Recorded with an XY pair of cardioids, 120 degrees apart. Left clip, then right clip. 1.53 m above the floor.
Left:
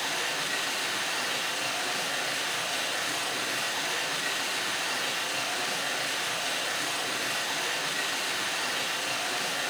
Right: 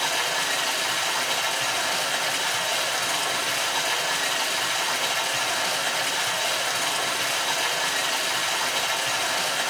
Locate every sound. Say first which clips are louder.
0.0 s running water: right 6 dB; 55° right, 7 m